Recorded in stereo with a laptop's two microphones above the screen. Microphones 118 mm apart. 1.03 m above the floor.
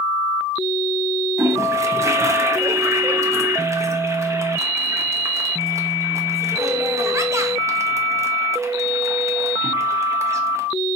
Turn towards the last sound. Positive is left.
turn(degrees=-25)  # may be behind; listen again after turning